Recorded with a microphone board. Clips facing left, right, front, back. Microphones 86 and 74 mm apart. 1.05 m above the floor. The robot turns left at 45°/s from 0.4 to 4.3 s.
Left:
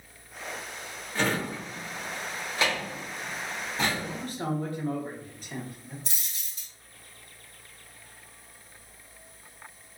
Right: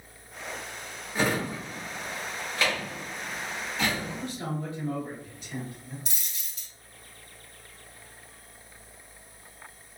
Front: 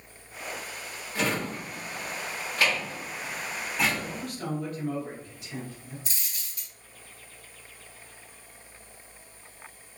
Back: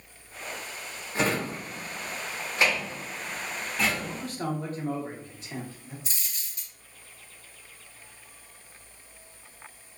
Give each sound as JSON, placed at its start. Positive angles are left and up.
{"t": 1.1, "sound": "a drawer", "azimuth_deg": -155, "distance_m": 0.8}
{"t": 4.0, "sound": "a man speaking", "azimuth_deg": 140, "distance_m": 0.9}
{"t": 6.0, "sound": "a dropped coin", "azimuth_deg": 135, "distance_m": 1.7}